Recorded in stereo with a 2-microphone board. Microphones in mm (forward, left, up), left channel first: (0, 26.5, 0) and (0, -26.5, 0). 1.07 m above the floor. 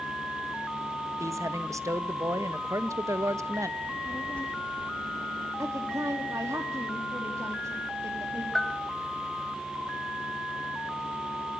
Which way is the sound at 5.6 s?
85° right.